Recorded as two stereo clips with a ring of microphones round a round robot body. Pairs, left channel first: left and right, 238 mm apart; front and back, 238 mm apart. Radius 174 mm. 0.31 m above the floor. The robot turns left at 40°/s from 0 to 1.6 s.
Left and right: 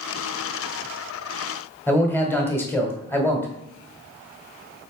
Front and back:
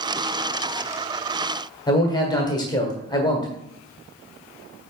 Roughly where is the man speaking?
Ahead left.